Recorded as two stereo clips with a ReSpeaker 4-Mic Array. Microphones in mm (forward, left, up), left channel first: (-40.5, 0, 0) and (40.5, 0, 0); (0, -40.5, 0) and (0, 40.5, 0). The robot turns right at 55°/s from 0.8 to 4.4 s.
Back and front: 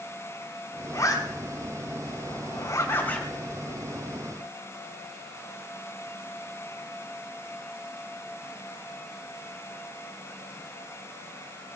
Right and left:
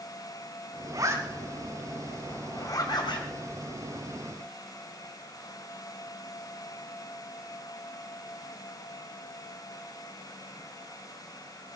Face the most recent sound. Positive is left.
turn(degrees=-40)